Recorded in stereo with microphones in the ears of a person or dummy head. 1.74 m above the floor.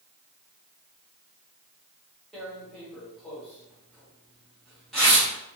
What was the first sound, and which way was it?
Tearing paper, 5° left (ahead or behind).